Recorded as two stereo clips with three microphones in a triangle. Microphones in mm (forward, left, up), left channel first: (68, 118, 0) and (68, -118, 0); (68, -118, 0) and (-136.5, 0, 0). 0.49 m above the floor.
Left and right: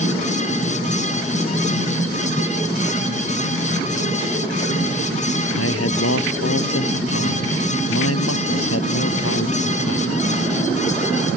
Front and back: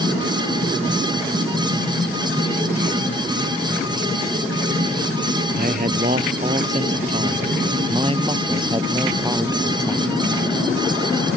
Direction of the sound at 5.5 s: 100° left.